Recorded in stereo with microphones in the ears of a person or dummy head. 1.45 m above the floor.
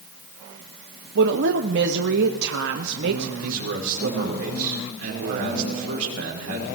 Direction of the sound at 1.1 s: 60° right (ahead or behind).